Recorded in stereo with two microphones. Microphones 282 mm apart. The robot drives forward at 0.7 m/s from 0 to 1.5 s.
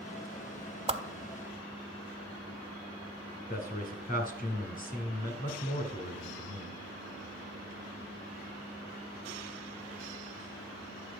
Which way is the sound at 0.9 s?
20° right (ahead or behind).